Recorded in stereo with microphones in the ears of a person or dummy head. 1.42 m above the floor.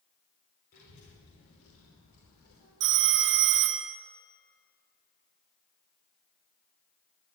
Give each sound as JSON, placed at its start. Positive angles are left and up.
{"t": 0.7, "sound": "a child speaking", "side_deg": 55, "distance_m": 4.0}
{"t": 2.8, "sound": "a phone ringing", "side_deg": -60, "distance_m": 1.2}